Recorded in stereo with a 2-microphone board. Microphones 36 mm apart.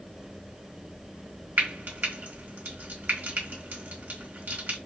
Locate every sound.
1.6 s frying: 50° right (ahead or behind), 1.5 m